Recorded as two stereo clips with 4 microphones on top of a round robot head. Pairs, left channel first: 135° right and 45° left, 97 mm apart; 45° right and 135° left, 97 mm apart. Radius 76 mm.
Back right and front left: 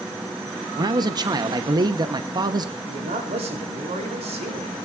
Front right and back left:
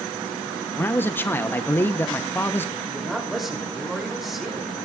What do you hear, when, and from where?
0.8 s a man speaking: 20° left, 0.8 m
2.9 s a man speaking: 50° left, 3 m